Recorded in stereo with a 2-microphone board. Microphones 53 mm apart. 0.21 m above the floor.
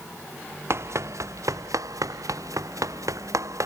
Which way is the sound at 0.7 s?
55° right (ahead or behind).